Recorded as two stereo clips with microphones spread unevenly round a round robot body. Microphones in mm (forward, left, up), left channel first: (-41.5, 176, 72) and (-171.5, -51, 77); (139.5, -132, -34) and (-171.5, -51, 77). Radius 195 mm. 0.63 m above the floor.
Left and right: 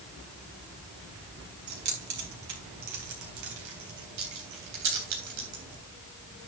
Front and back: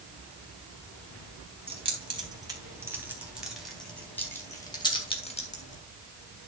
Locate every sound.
1.7 s keys jangling: 120° right, 4 m; by 5.8 s 80° right, 3 m